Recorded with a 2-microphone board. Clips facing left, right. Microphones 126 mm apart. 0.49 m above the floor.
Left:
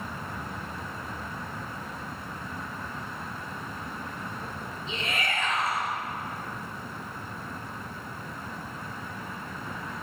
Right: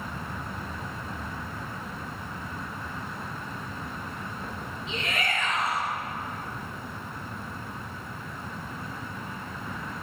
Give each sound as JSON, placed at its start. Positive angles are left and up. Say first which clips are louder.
{"t": 4.9, "sound": "a shout", "louder": "right 1 dB", "side_deg": 30, "distance_m": 9.0}